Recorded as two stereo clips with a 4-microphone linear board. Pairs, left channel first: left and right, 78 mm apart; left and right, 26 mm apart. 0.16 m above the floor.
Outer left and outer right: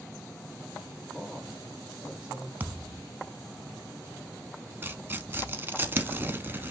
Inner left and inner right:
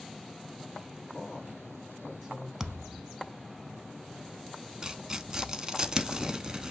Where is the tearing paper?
25° right (ahead or behind), 0.7 m.